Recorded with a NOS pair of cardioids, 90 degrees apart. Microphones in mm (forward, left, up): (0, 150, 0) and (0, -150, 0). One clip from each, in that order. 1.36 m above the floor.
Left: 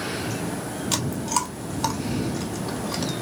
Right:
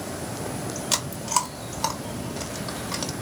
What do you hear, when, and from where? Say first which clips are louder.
0.9 s chewing: right 1 dB; 5° right, 1.5 m